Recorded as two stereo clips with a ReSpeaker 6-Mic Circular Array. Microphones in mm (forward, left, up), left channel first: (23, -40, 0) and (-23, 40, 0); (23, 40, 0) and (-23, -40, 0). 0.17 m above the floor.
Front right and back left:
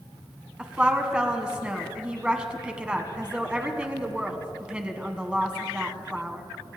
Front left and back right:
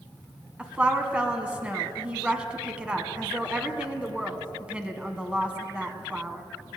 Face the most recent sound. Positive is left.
turn(degrees=180)